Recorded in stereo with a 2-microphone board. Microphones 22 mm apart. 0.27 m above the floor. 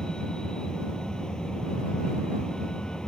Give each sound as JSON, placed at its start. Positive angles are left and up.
{"t": 0.0, "sound": "a vehicle", "side_deg": 35}